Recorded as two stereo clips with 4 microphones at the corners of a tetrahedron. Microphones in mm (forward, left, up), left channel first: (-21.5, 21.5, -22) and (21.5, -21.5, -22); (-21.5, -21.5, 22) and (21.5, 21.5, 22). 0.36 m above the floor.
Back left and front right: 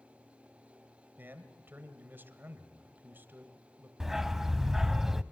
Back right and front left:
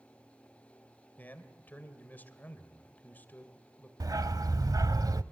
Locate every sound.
1.2 s a man speaking: 85° right, 2.0 m
4.0 s a dog barking: 40° left, 0.5 m